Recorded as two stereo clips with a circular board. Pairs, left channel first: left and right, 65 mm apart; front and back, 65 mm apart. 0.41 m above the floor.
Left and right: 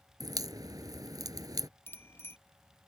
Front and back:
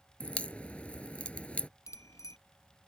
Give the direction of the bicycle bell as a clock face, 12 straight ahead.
11 o'clock.